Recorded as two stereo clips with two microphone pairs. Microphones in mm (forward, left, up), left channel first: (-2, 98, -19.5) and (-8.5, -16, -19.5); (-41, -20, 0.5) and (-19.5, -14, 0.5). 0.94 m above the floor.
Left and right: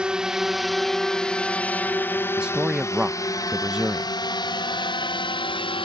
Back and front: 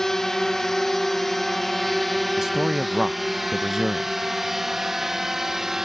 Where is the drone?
160° right; by 5.9 s 80° left.